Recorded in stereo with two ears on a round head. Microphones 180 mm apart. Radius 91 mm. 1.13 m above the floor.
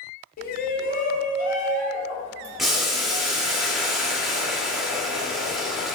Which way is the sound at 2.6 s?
Centre (ahead or behind).